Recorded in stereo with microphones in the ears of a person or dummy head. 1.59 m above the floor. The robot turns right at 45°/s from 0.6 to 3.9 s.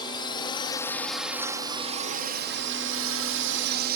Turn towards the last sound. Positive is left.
turn(degrees=-60)